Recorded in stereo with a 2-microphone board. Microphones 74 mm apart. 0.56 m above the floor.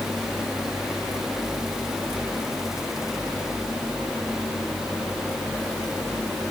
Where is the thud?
No thud in this recording.